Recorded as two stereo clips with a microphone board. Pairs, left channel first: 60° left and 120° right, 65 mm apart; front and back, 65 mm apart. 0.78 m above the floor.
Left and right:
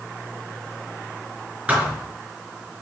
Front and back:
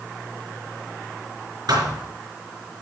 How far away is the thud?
About 4.5 m.